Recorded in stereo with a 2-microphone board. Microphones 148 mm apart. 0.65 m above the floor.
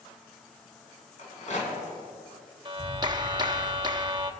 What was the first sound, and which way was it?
A rattle, 50° left (ahead or behind).